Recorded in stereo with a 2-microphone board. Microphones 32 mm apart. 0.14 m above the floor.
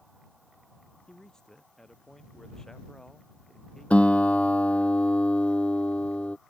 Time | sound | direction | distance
1.1 | a man speaking | 20° left (ahead or behind) | ?
3.9 | a guitar | 40° left (ahead or behind) | ?